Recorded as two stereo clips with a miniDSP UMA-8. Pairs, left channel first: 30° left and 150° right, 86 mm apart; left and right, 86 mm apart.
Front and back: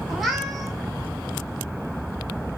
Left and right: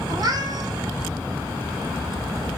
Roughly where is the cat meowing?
Ahead right.